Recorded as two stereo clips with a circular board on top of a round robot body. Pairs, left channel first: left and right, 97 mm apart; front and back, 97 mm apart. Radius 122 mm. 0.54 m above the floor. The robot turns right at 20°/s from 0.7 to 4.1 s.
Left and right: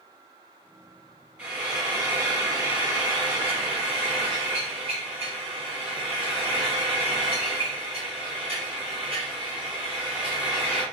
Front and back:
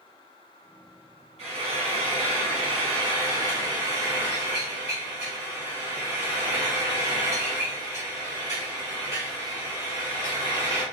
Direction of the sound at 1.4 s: 170° right.